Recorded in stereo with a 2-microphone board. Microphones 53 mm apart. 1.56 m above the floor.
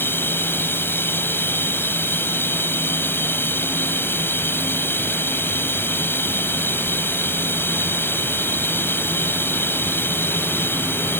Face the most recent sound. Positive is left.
turn(degrees=45)  # may be behind; listen again after turning